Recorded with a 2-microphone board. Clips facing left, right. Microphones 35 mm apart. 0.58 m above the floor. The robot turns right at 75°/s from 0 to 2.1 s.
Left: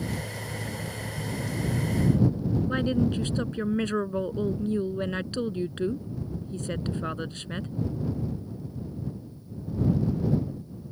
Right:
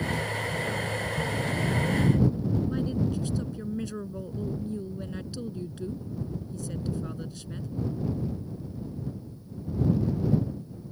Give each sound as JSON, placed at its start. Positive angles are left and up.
{"t": 2.7, "sound": "a woman speaking", "side_deg": 50}